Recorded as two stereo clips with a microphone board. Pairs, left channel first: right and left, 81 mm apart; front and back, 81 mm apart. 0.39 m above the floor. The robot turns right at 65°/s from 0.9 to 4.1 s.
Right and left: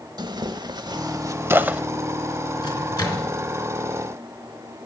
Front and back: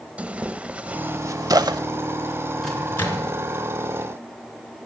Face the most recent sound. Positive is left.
turn(degrees=5)